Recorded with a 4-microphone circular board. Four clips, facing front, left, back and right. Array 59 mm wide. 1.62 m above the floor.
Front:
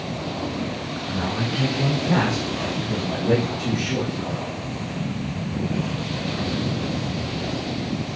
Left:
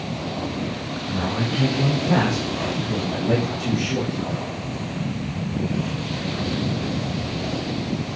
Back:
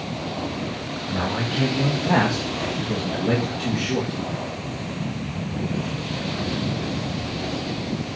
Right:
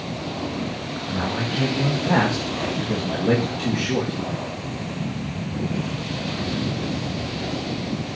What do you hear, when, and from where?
1.1 s a man speaking: 165° right, 2 m; by 4.2 s 95° right, 2 m